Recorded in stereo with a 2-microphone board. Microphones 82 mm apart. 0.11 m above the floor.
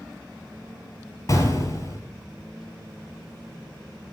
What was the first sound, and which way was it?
An explosion, 45° left (ahead or behind).